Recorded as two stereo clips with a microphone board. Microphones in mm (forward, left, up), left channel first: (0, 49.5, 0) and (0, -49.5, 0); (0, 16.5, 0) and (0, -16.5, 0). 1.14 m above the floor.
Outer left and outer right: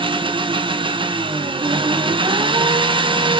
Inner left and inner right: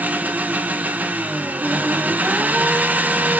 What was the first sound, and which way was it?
An engine running, 55° right (ahead or behind).